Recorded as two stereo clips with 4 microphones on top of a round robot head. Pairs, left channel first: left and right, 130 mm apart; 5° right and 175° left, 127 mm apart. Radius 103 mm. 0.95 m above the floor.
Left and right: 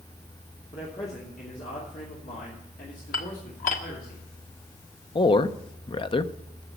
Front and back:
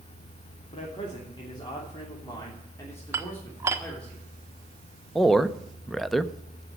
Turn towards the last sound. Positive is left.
turn(degrees=85)